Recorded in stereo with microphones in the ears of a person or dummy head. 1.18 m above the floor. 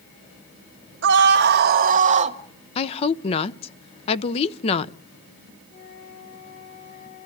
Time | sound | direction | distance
1.0 | a scream | 60° right (ahead or behind) | 1.8 m
2.8 | a woman speaking | 30° left (ahead or behind) | 0.7 m
5.7 | a flute | 45° left (ahead or behind) | 7 m